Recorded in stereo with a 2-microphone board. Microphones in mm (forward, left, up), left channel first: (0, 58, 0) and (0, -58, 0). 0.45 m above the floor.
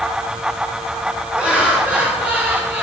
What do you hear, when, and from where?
1.4 s laughter: 10° right (ahead or behind), 8 m; by 2.8 s 20° right (ahead or behind), 6 m